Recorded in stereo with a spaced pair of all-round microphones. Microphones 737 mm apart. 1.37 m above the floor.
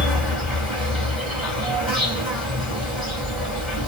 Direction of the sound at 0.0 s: Centre (ahead or behind).